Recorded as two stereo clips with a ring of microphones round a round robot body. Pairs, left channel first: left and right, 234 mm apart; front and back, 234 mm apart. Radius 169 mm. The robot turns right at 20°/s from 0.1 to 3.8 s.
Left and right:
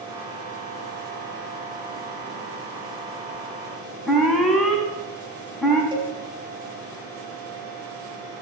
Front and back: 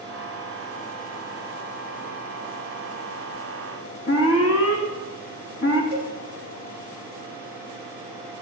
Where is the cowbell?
20° right, 5.5 m.